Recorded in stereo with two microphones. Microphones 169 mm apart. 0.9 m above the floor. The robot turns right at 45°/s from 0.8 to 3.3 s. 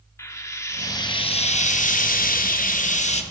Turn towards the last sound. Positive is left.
turn(degrees=135)